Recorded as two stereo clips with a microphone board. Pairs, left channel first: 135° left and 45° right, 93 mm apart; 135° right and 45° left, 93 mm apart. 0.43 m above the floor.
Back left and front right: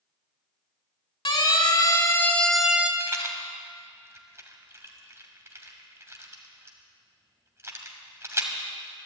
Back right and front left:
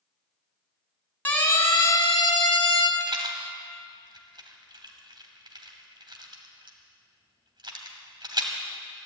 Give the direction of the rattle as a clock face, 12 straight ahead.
12 o'clock.